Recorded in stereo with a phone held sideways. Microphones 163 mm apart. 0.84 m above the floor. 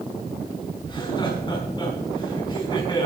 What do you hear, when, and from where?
0.8 s laughter: 30° left (ahead or behind), 6.5 m